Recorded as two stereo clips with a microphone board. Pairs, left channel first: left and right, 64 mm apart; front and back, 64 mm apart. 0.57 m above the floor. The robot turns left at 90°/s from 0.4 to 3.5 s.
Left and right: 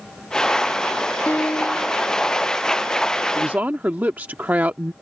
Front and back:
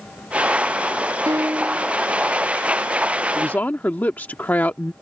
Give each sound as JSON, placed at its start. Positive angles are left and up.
{"t": 1.3, "sound": "a piano", "azimuth_deg": 155}
{"t": 3.4, "sound": "a woman speaking", "azimuth_deg": -30}